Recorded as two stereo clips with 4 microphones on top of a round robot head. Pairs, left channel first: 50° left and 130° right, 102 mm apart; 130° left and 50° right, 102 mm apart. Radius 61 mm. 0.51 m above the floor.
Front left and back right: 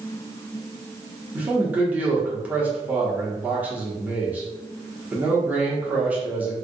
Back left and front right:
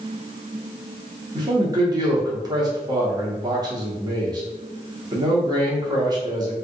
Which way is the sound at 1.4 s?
65° right.